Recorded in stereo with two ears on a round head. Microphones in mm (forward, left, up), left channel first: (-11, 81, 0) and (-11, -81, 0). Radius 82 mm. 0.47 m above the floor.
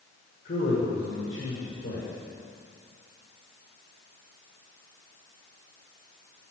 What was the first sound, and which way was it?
A man speaking, 55° left (ahead or behind).